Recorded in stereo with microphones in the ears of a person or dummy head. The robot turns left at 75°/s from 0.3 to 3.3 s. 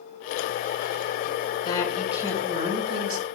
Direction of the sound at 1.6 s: 25° left.